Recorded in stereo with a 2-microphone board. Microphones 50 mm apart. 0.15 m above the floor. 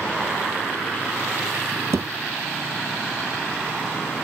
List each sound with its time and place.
1.9 s a thud: 65° right (ahead or behind), 1.2 m